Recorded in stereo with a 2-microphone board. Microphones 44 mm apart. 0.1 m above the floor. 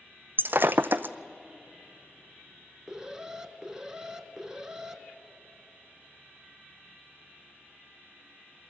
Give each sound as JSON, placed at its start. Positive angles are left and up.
{"t": 0.4, "sound": "breaking glass", "side_deg": -50, "distance_m": 0.6}
{"t": 2.9, "sound": "an alarm", "side_deg": -15, "distance_m": 0.9}